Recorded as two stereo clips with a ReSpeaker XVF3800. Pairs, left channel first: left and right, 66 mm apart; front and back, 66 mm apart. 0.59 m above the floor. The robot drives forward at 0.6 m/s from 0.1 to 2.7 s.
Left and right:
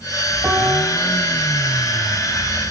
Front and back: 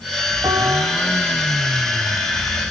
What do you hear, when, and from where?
0.4 s a piano: 150° right, 6.5 m; by 1.0 s 155° right, 6.5 m